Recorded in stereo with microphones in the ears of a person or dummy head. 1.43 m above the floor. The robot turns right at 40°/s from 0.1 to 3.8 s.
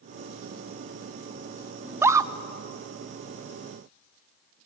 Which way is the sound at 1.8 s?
5° right (ahead or behind).